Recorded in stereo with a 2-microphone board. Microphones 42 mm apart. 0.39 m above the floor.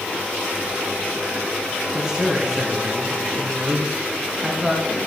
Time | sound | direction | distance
1.9 | a man speaking | 15° right (ahead or behind) | 3.5 m